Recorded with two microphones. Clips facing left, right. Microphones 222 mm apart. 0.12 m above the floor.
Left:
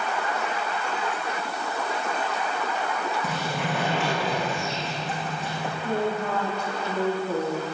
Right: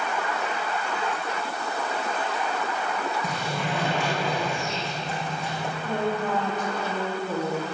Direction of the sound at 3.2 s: Centre (ahead or behind).